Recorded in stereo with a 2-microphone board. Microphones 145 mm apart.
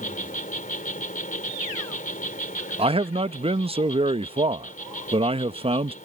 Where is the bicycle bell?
No bicycle bell in this recording.